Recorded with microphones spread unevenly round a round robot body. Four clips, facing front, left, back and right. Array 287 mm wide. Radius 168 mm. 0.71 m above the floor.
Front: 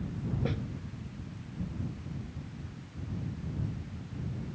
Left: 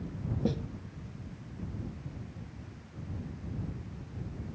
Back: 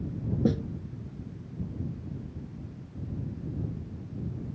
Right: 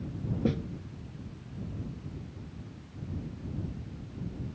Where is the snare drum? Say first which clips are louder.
Right 2 dB, back 11 dB; 165° right.